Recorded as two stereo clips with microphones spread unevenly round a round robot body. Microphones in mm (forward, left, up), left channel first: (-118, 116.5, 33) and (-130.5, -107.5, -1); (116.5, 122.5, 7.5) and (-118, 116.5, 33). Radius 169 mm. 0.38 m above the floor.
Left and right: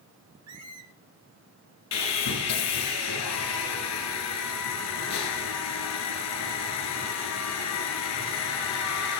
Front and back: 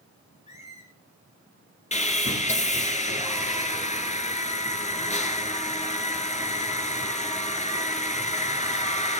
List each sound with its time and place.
0.5 s a squeak: 70° right, 1.2 m
1.9 s sawing: 65° left, 1.8 m